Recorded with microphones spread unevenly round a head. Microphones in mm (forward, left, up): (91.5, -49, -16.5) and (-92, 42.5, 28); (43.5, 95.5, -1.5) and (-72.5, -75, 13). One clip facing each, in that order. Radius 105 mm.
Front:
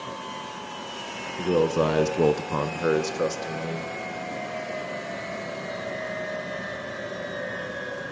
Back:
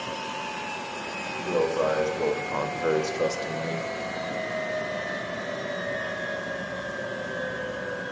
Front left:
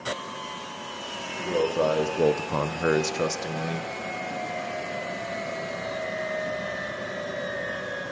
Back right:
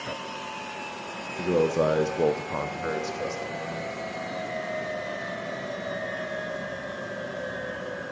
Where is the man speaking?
70° right, 1.0 m; by 3.9 s 60° left, 1.5 m.